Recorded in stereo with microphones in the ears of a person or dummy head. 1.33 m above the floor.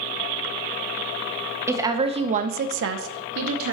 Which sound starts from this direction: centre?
A woman speaking, at 1.7 s.